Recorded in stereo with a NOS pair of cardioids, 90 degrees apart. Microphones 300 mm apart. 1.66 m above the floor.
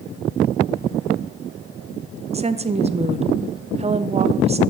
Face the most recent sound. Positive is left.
turn(degrees=-20)